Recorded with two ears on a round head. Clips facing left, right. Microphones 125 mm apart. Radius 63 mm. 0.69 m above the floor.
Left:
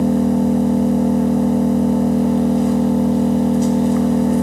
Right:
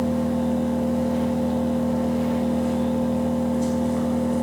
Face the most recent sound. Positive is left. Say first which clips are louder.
# left 7 dB
turn(degrees=70)  # may be behind; listen again after turning